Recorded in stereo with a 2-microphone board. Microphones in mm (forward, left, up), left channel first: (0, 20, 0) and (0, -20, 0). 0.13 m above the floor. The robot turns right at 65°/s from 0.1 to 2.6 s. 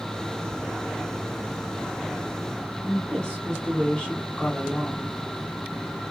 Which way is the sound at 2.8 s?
20° left (ahead or behind).